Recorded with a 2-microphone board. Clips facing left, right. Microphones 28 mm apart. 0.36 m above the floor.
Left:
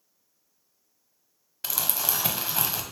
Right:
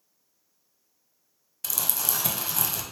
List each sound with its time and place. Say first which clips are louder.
1.6 s crumpling: left 1 dB; 30° left (ahead or behind), 0.5 m